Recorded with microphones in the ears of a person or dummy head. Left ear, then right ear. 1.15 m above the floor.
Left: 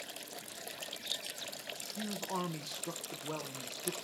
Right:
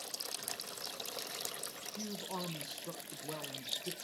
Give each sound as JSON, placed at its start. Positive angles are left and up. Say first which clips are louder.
{"t": 2.0, "sound": "a man speaking", "louder": "left 4 dB", "side_deg": 10, "distance_m": 0.8}